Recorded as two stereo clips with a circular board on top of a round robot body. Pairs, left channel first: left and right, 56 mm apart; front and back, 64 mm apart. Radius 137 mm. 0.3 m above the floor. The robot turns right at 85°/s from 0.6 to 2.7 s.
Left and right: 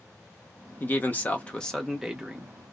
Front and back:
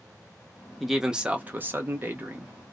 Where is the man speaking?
85° left, 1.0 m; by 2.5 s 130° right, 1.0 m.